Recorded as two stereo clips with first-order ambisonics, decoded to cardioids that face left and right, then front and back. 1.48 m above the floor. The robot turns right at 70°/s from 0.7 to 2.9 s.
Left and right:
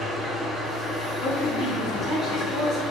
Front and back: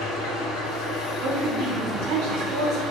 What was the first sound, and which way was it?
An engine running, 5° left.